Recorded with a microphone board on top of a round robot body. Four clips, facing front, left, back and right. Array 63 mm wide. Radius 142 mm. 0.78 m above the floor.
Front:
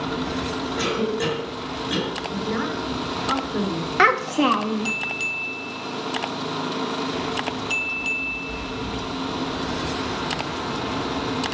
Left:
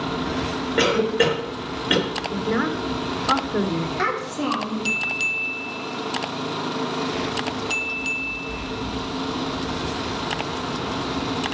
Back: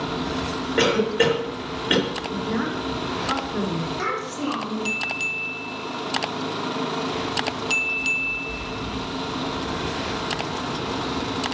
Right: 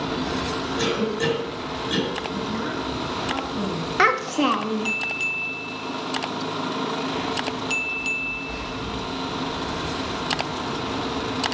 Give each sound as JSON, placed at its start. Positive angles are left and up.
{"t": 0.8, "sound": "a cough", "azimuth_deg": 140, "distance_m": 3.0}
{"t": 2.3, "sound": "a woman speaking", "azimuth_deg": 90, "distance_m": 1.7}
{"t": 4.0, "sound": "a child speaking", "azimuth_deg": -25, "distance_m": 1.2}